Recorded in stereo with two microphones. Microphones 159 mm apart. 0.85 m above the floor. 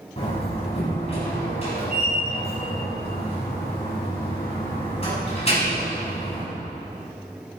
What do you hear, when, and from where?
0.2 s a door slam: 35° left (ahead or behind), 5.5 m